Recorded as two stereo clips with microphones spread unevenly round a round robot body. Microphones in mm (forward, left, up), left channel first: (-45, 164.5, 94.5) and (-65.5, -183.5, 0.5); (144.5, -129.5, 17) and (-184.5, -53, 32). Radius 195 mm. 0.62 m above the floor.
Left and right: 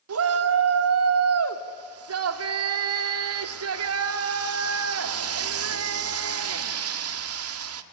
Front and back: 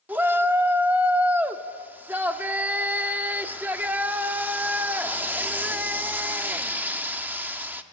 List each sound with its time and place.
0.1 s a shout: 105° right, 1.3 m